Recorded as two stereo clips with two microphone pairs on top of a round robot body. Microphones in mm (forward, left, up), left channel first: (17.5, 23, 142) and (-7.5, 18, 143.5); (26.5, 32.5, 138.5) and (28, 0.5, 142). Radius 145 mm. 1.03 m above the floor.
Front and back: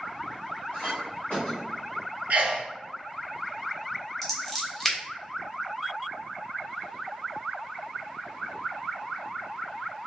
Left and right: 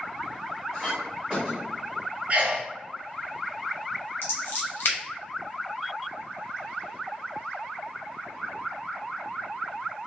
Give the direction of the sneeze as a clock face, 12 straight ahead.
5 o'clock.